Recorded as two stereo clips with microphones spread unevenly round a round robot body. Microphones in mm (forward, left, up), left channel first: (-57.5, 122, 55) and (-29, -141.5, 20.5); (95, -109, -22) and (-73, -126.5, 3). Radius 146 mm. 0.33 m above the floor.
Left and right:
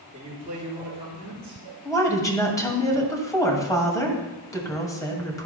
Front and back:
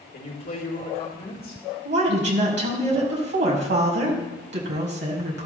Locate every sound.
0.1 s a man speaking: 15° right, 4 m
1.9 s a woman speaking: 175° left, 2 m